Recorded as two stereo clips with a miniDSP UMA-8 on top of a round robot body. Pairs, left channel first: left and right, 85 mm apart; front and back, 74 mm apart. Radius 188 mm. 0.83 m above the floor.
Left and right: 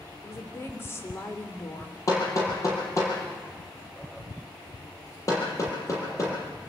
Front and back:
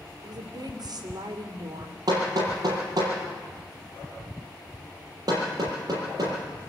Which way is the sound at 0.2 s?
150° left.